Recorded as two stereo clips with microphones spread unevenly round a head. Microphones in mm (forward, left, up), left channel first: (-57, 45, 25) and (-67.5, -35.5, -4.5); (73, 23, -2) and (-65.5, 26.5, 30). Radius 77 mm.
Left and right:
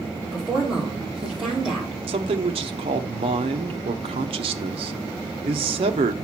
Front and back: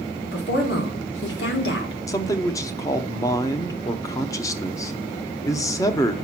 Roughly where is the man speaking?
Right.